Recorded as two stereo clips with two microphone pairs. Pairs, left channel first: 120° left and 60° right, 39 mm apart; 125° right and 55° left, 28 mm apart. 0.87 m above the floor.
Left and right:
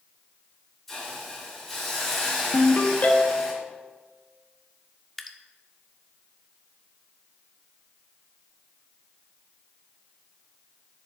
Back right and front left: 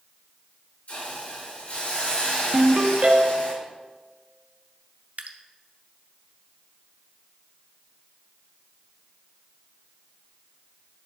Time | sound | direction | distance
0.9 | a hiss | 160° right | 3.5 m
2.5 | a ringtone | 80° left | 1.1 m
5.2 | dripping | 35° left | 0.6 m